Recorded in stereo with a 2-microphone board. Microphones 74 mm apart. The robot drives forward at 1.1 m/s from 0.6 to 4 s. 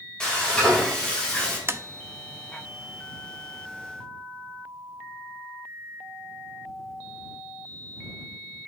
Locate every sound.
0.2 s frying: 10° left (ahead or behind), 4.5 m; by 1.6 s 15° left (ahead or behind), 3.5 m
1.7 s tapping: 35° right (ahead or behind), 0.5 m; by 1.8 s 30° right (ahead or behind), 0.6 m